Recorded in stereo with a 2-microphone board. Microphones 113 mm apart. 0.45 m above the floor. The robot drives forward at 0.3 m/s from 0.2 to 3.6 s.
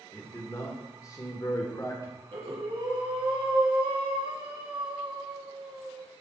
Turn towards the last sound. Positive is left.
turn(degrees=-45)  # may be behind; listen again after turning